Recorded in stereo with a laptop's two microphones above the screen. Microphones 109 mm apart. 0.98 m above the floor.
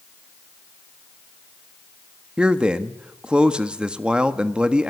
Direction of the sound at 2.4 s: 10° right (ahead or behind).